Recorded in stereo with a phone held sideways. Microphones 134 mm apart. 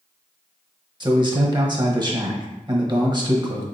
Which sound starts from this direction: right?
A man speaking, at 1.0 s.